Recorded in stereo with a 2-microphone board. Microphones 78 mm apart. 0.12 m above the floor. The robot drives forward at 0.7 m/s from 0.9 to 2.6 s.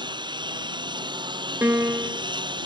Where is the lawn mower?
75° right (ahead or behind); by 2.7 s 80° right.